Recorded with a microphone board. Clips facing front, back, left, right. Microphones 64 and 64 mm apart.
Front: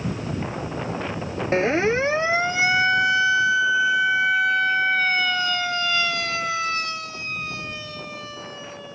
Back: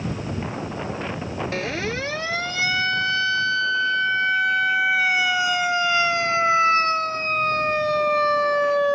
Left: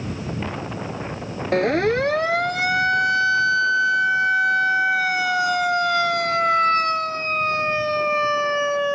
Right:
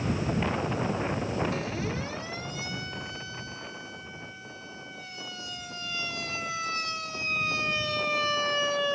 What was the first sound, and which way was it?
A siren, 60° left.